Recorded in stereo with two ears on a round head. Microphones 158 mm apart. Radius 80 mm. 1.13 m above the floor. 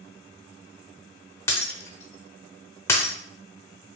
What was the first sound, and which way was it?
Breaking glass, 15° left (ahead or behind).